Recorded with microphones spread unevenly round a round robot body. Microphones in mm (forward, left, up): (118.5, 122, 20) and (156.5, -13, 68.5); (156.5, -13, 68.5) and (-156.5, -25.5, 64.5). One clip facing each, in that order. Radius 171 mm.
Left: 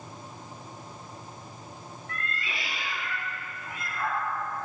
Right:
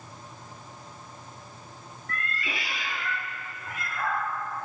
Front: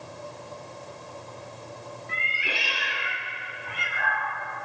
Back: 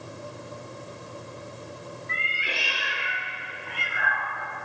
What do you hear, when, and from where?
2.1 s a cat meowing: 50° right, 1.9 m; by 4.3 s 95° right, 1.3 m